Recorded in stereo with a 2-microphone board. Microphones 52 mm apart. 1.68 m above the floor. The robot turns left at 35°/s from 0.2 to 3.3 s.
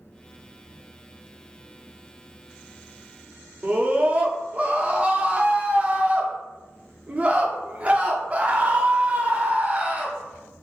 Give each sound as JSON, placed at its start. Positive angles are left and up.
{"t": 3.6, "sound": "a scream", "side_deg": -30, "distance_m": 0.6}